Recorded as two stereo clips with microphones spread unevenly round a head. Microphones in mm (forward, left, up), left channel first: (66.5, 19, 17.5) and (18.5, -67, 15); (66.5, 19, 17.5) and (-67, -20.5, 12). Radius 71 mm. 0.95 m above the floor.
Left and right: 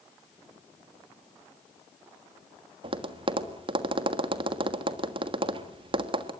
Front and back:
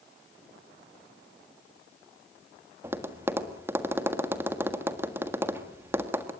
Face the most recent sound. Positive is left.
turn(degrees=-90)